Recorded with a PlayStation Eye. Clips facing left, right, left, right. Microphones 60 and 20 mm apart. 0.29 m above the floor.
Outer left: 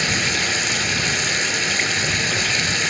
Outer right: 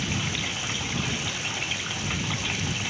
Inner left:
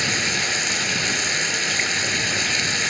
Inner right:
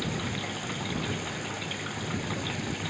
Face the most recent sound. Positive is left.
turn(degrees=75)  # may be behind; listen again after turning